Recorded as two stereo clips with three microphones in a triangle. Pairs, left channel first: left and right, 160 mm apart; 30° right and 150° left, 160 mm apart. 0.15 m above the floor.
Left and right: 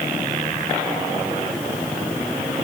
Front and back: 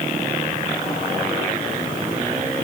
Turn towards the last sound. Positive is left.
No sound to turn to.